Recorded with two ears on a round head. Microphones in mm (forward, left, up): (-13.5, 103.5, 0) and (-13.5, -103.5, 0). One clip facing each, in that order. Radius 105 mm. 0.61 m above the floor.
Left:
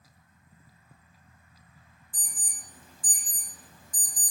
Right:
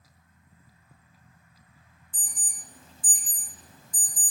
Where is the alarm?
20° right (ahead or behind), 0.5 m.